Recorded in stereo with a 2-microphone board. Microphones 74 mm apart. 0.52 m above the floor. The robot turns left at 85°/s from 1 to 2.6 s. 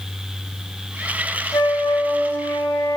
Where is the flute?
120° left, 0.5 m; by 3.0 s 30° left, 0.5 m.